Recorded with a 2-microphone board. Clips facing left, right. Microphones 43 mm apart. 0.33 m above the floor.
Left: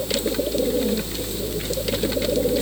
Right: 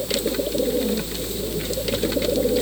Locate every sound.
Only background noise.